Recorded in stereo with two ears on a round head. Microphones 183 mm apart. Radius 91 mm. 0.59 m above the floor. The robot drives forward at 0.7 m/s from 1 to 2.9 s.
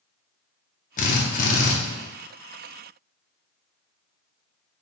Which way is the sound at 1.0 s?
40° left (ahead or behind).